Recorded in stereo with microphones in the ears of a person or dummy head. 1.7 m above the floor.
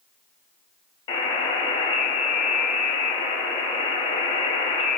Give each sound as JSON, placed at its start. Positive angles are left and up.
{"t": 1.1, "sound": "a buzzer", "side_deg": 35, "distance_m": 0.8}